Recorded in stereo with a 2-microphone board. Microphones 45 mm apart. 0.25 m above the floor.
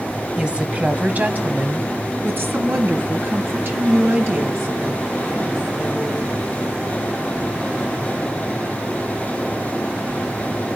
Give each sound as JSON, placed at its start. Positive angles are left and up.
{"t": 0.4, "sound": "a woman speaking", "side_deg": -20, "distance_m": 1.3}